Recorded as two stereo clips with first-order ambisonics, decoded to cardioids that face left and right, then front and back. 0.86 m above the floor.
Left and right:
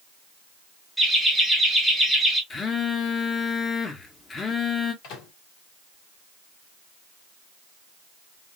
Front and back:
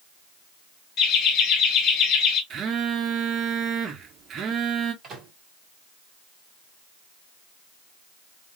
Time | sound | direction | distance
1.0 | laughter | straight ahead | 0.7 m
2.5 | a phone buzzing | 150° left | 0.6 m
5.0 | a microwave | 115° left | 1.6 m